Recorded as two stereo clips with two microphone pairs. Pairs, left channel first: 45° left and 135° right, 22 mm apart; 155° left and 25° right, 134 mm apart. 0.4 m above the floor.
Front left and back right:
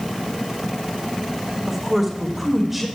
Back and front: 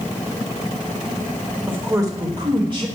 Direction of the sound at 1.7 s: 75° right.